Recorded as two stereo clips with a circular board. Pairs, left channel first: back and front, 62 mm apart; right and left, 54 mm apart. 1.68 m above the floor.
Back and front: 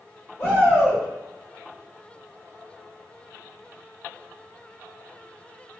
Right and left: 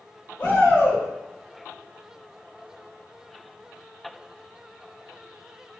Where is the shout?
135° right, 1.8 m.